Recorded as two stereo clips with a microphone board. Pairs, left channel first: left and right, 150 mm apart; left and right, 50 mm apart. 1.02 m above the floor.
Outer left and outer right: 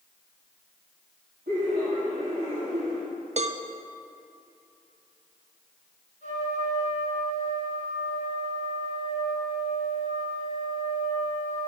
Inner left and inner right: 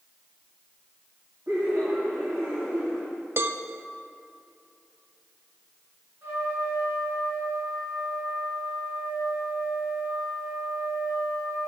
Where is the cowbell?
50° right (ahead or behind), 0.5 m.